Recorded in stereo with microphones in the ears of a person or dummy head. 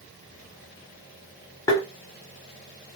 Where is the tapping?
15° left (ahead or behind), 0.7 m.